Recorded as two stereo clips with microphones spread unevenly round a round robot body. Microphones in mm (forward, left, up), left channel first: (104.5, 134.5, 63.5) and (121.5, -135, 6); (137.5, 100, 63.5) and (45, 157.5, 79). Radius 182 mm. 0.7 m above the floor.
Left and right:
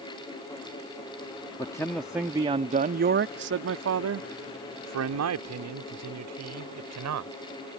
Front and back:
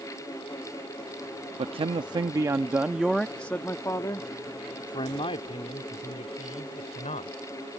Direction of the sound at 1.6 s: 175° left.